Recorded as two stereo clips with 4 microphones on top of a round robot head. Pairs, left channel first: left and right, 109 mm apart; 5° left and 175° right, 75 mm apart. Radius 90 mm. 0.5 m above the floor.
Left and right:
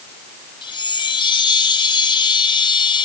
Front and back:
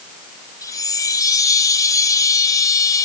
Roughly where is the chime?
Ahead left.